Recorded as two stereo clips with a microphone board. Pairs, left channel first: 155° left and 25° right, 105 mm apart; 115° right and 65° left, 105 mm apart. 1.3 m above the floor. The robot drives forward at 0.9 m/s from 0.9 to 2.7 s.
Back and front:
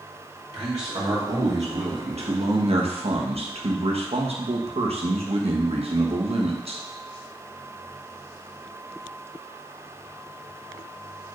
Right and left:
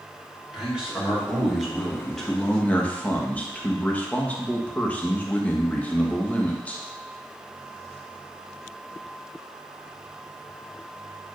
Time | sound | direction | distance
0.5 | a man speaking | 15° right | 2.5 m